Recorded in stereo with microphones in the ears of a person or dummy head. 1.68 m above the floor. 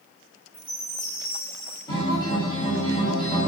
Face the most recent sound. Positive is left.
turn(degrees=30)  # may be behind; listen again after turning